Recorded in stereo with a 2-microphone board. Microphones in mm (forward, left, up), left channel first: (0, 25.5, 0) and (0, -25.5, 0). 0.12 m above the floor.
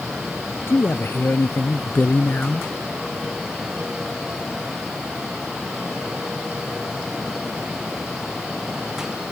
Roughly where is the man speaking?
Left.